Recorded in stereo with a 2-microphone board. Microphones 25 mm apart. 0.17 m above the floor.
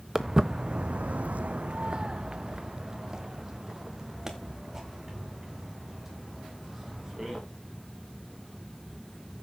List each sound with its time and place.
0.1 s footsteps: 15° right (ahead or behind), 0.9 m